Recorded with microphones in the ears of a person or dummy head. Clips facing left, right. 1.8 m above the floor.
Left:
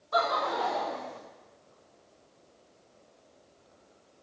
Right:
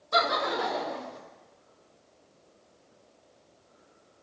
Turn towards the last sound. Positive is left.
turn(degrees=-20)  # may be behind; listen again after turning